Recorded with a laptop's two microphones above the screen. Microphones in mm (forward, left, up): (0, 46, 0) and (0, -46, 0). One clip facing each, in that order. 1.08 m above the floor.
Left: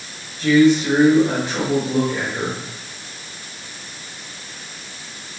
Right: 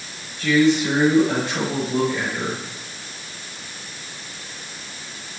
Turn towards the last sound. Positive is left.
turn(degrees=20)  # may be behind; listen again after turning